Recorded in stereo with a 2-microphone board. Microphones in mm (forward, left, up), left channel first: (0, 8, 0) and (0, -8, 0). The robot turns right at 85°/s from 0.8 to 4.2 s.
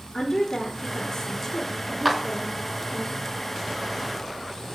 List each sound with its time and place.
0.1 s a woman speaking: 105° left, 1.2 m; by 3.0 s 65° right, 1.2 m
2.0 s a clap: 5° right (ahead or behind), 0.9 m; by 2.2 s centre (ahead or behind), 0.9 m